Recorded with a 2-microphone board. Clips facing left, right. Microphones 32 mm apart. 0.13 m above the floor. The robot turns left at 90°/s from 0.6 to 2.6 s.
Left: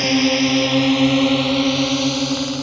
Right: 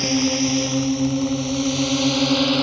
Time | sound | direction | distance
0.0 | a drone | 35° left (ahead or behind) | ?